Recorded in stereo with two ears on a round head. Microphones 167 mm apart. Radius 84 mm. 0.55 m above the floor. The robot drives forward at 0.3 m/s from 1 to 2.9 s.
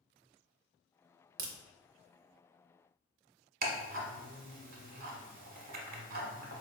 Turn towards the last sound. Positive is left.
turn(degrees=-50)  # may be behind; listen again after turning